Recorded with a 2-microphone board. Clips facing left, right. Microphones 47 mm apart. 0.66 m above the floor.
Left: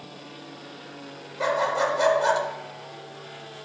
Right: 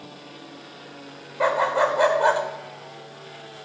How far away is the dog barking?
About 0.7 m.